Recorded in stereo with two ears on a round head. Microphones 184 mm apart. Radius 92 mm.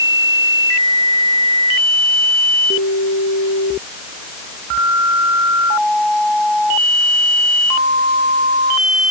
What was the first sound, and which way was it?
Only background noise.